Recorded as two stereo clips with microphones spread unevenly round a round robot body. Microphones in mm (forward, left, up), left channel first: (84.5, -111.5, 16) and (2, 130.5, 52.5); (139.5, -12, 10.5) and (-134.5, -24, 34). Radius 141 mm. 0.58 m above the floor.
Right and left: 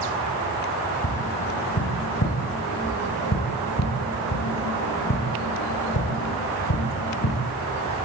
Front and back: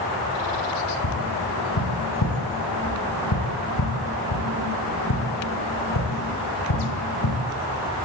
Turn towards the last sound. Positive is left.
turn(degrees=-30)